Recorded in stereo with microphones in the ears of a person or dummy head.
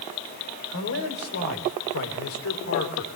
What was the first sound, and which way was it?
A man speaking, 75° left (ahead or behind).